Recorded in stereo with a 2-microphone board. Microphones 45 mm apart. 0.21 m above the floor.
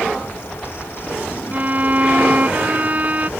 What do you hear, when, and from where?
1.5 s a violin: 35° right (ahead or behind)